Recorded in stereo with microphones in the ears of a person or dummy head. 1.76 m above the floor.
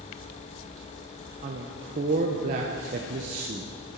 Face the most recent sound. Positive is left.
turn(degrees=-35)  # may be behind; listen again after turning